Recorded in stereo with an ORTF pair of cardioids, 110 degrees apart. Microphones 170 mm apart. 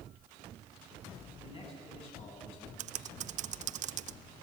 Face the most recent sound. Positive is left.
turn(degrees=-45)